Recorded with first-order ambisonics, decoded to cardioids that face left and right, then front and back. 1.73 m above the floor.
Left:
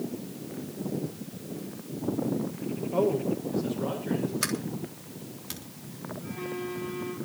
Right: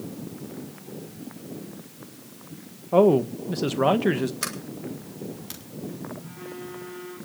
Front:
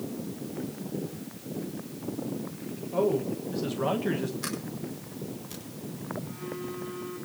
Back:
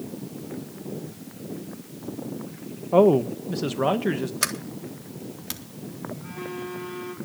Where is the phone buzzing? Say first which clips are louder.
Left 3 dB, back 3 dB; 160° left, 7.5 m.